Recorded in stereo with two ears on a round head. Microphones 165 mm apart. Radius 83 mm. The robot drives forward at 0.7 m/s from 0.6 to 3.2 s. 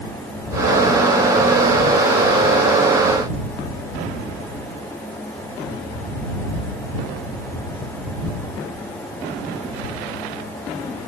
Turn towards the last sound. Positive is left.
No sound to turn to.